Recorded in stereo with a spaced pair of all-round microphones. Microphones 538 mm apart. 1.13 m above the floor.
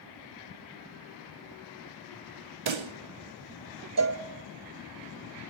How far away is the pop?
About 0.7 m.